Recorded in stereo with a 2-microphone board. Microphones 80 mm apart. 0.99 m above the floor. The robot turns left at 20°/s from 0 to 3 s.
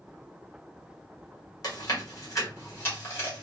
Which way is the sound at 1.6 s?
50° left (ahead or behind).